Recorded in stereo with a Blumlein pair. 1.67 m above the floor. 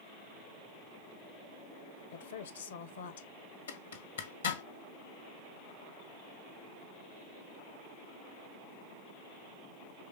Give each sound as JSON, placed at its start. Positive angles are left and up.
{"t": 2.1, "sound": "a woman speaking", "azimuth_deg": 65, "distance_m": 1.3}
{"t": 3.7, "sound": "a zipper", "azimuth_deg": 70, "distance_m": 1.9}